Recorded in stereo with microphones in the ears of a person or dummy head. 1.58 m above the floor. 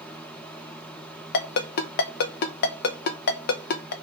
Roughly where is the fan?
Centre.